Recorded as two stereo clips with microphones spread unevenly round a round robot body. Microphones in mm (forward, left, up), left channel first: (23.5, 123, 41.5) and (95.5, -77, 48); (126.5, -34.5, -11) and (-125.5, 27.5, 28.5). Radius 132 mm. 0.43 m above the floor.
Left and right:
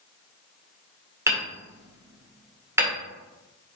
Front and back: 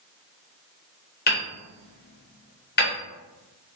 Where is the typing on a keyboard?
No typing on a keyboard in this recording.